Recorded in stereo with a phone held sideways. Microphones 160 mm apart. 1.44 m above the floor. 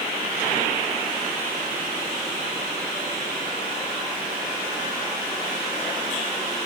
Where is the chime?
I don't hear a chime.